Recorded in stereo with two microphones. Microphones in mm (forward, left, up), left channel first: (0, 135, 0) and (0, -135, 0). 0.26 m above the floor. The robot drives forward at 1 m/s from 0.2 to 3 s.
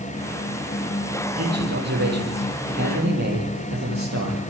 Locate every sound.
1.4 s a man speaking: 70° right (ahead or behind), 7 m; by 4.4 s 80° right, 6.5 m